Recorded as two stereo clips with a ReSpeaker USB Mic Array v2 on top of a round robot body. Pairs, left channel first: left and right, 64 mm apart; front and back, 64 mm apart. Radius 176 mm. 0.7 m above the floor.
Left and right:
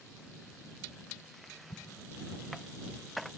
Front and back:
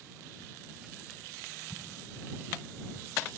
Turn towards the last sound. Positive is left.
turn(degrees=70)